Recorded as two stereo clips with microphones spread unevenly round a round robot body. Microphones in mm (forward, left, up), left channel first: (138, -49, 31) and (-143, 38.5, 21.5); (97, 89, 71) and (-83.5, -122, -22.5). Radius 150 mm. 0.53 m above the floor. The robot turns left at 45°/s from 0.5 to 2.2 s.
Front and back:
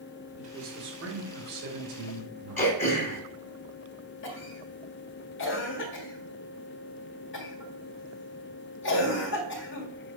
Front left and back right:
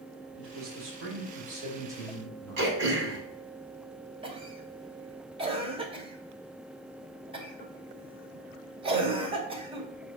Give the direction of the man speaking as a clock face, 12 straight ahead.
4 o'clock.